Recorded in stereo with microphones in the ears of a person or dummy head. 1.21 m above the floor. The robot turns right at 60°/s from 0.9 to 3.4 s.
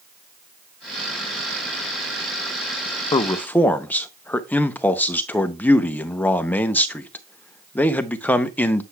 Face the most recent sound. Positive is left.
turn(degrees=10)  # may be behind; listen again after turning